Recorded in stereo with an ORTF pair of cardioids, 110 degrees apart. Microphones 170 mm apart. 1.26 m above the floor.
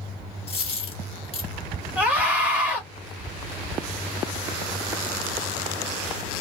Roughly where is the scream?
Ahead.